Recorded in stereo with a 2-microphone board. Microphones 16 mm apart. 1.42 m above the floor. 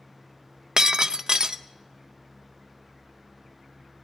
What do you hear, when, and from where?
0.8 s breaking glass: 45° right (ahead or behind), 0.8 m